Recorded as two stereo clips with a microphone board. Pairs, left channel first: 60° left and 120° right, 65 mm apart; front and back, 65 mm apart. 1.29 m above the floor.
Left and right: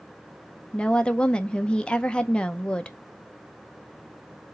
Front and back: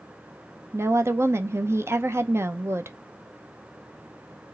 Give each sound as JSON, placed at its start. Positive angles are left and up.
{"t": 0.7, "sound": "a woman speaking", "azimuth_deg": 135, "distance_m": 0.6}